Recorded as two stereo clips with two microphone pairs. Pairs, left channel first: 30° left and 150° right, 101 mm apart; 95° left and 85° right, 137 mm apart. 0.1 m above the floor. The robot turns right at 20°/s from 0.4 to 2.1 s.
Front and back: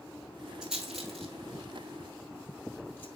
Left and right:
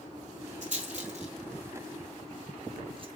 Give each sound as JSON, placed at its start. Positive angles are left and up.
{"t": 0.6, "sound": "a rattle", "azimuth_deg": -65, "distance_m": 2.5}